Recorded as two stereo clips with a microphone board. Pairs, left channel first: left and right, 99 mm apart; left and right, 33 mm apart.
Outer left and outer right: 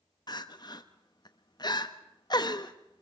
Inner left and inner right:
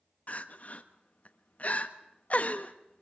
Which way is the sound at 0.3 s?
45° left (ahead or behind).